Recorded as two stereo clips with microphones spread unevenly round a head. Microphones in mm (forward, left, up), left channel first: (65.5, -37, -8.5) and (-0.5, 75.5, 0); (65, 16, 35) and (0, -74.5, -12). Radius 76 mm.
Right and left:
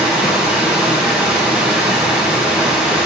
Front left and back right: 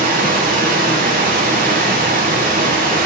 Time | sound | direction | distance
0.0 | running water | 155° right | 0.9 m